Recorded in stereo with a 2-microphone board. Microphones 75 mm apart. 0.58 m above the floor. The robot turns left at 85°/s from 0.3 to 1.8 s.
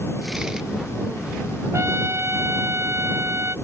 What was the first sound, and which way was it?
A trumpet, 45° right (ahead or behind).